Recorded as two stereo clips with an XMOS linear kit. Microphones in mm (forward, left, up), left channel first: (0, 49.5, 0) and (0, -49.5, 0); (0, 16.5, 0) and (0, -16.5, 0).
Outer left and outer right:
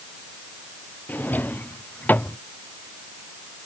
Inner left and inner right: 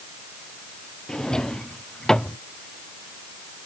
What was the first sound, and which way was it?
A drawer, 20° left (ahead or behind).